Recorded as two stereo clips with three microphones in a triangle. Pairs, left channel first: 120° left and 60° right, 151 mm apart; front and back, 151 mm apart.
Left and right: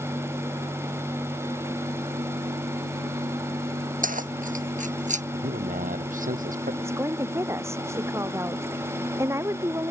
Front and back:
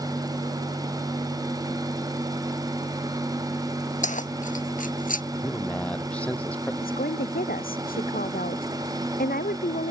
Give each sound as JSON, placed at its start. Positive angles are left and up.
{"t": 4.0, "sound": "keys jangling", "azimuth_deg": -35}
{"t": 5.3, "sound": "a man speaking", "azimuth_deg": -80}
{"t": 6.8, "sound": "a woman speaking", "azimuth_deg": 10}